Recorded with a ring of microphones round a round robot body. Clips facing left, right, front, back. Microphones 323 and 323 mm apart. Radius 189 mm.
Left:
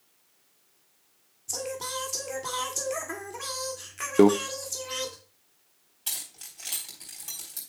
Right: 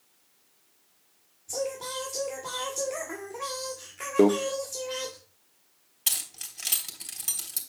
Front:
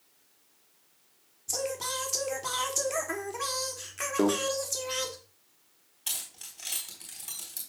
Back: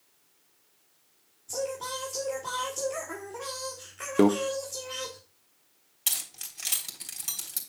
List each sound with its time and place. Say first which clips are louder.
1.5 s singing: right 3 dB, back 1 dB; 35° left, 1.8 m
4.2 s a microwave: left 2 dB, back 5 dB; 150° left, 0.7 m
6.1 s keys jangling: right 1 dB, back 1 dB; 135° right, 3 m